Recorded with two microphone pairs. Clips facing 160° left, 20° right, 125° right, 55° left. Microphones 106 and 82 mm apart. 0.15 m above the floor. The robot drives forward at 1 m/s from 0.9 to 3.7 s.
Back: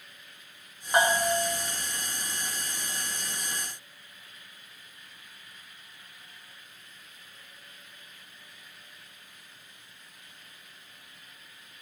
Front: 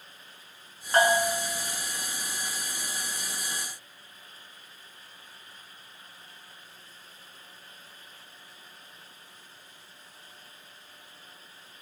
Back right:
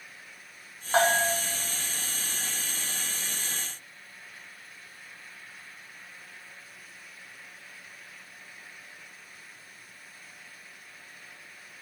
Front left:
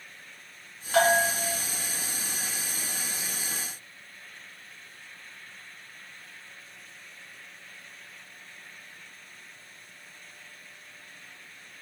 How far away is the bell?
About 1.3 m.